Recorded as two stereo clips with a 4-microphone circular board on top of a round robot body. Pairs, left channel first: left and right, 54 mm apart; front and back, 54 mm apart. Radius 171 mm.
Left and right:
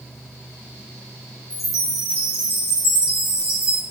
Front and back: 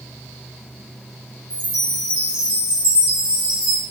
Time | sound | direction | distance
1.5 | a chime | 115° left | 3 m